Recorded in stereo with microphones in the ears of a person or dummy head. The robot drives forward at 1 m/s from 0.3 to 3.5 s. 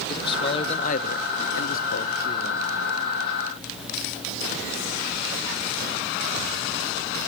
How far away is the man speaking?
About 1.5 m.